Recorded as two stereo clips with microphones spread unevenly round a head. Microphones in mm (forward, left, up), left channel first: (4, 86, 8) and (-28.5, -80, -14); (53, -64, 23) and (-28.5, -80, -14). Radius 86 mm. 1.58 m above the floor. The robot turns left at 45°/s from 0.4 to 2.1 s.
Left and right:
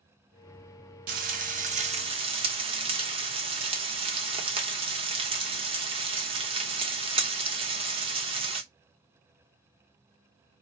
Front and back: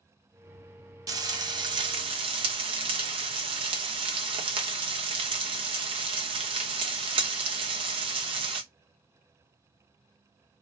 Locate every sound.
1.1 s frying: 110° right, 1.0 m; by 8.6 s 155° right, 1.0 m